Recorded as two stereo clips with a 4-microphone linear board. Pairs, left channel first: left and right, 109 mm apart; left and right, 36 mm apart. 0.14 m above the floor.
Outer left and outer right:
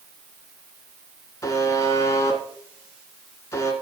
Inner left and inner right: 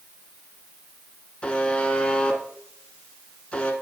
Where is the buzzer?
30° left (ahead or behind), 1.7 m.